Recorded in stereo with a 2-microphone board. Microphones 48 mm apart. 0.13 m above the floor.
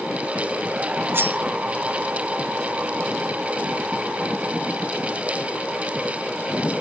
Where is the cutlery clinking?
50° right (ahead or behind), 0.9 m.